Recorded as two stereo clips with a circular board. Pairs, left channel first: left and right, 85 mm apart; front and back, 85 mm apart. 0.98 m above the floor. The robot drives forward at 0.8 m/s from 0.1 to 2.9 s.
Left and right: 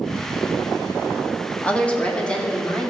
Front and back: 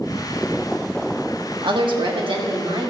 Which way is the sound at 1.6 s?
165° left.